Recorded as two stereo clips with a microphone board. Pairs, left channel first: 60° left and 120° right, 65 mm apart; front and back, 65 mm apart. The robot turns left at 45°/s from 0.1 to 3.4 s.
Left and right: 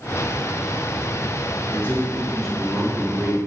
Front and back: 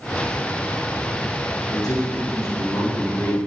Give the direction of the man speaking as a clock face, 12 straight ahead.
12 o'clock.